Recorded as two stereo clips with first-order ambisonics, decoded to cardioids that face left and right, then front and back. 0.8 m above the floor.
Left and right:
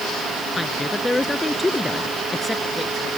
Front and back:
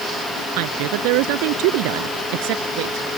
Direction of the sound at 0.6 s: 175° left.